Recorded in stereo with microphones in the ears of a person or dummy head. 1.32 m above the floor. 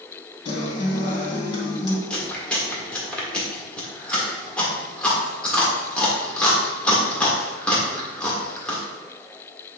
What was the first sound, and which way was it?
A guitar, 30° left (ahead or behind).